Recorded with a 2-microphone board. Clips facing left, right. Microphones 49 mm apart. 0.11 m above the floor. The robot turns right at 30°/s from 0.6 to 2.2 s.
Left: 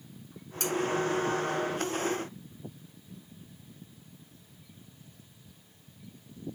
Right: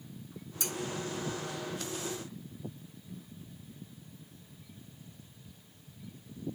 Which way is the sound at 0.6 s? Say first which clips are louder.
Left 7 dB; 55° left (ahead or behind).